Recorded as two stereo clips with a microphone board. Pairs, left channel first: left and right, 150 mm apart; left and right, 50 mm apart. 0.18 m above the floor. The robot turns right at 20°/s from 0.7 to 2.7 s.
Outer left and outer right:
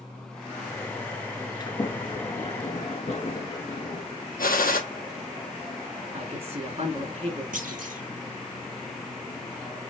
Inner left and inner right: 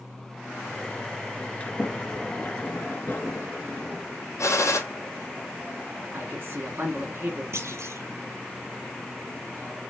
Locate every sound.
1.6 s a sliding door: 30° left (ahead or behind), 1.2 m; by 4.0 s 45° left (ahead or behind), 1.2 m
4.4 s a gunshot: 75° left (ahead or behind), 1.3 m
6.1 s a man speaking: 45° right (ahead or behind), 2.5 m
7.5 s a clunk: 65° right (ahead or behind), 0.9 m